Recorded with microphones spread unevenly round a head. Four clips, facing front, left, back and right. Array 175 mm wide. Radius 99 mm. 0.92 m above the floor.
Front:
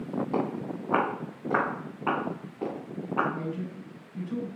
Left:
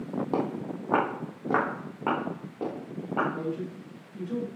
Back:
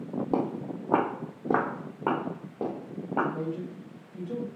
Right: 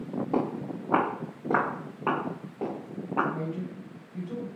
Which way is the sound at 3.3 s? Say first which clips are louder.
Left 1 dB, back 1 dB; 165° left.